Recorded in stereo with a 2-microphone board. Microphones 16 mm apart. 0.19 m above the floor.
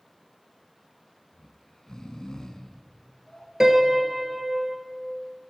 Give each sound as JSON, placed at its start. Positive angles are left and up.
{"t": 1.3, "sound": "snoring", "side_deg": 55, "distance_m": 0.7}
{"t": 3.6, "sound": "a piano", "side_deg": -40, "distance_m": 0.7}